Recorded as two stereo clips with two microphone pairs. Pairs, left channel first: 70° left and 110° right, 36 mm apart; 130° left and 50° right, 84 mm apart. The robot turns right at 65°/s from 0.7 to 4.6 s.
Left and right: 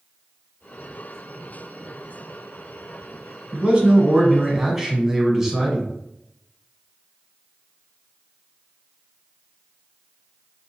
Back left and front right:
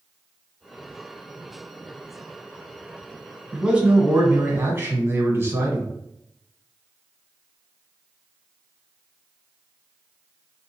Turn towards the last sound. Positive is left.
turn(degrees=-55)